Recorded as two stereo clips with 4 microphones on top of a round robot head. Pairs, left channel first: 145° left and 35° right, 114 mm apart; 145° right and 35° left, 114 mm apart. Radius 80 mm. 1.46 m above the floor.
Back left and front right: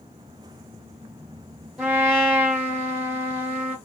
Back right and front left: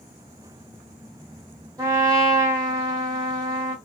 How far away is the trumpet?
About 1.2 m.